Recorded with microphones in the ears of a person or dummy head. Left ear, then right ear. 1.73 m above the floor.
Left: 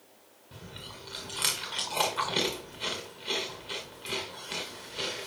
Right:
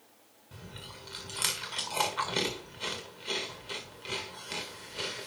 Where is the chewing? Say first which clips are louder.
Left 2 dB; 10° right (ahead or behind), 1.5 m.